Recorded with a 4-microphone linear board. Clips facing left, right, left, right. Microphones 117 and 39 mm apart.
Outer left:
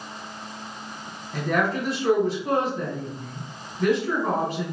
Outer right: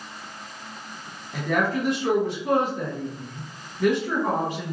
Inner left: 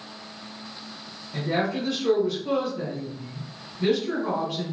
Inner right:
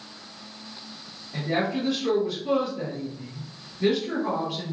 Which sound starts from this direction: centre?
A woman speaking, at 1.3 s.